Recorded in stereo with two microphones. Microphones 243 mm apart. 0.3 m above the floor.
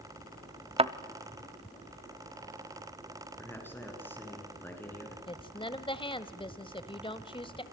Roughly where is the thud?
Right.